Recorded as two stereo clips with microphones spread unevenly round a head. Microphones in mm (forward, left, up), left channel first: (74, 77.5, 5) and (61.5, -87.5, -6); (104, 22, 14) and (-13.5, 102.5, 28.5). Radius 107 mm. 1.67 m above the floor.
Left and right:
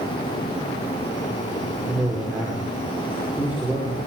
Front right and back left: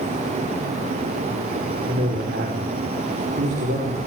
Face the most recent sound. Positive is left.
turn(degrees=180)